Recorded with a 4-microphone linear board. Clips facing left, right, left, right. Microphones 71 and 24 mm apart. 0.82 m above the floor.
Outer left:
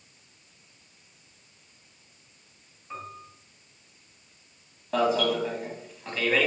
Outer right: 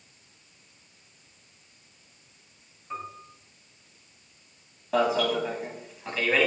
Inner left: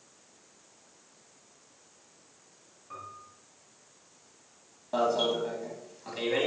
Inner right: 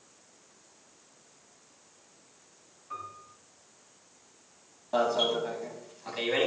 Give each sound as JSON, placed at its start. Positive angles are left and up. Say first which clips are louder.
{"t": 2.9, "sound": "a piano", "louder": "outer right 2 dB, inner right 3 dB", "side_deg": 0, "distance_m": 4.0}
{"t": 4.9, "sound": "an alarm", "louder": "even, even", "side_deg": -5, "distance_m": 3.0}